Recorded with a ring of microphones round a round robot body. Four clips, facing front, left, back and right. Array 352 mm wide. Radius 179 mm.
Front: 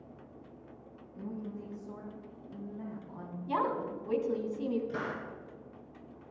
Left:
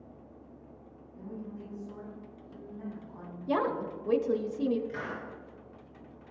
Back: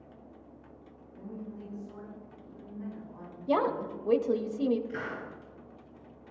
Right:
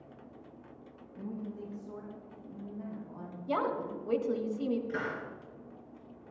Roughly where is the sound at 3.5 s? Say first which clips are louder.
Left 2 dB, back 4 dB; behind left.